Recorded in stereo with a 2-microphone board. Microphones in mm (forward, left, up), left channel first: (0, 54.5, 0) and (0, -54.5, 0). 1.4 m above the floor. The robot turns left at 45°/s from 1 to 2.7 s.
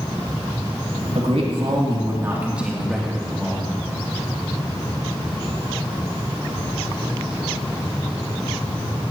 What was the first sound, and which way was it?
A man speaking, 105° right.